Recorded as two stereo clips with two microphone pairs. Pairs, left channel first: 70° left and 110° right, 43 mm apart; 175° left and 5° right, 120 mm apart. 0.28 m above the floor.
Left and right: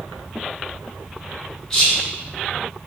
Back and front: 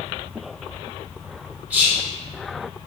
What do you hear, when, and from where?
1.7 s whispering: 45° left, 1.0 m